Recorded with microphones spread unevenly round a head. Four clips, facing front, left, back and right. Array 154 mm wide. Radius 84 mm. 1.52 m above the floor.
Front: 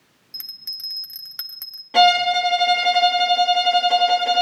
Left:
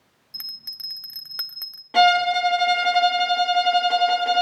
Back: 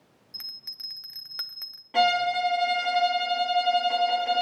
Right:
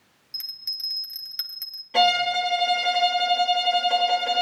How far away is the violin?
About 3 m.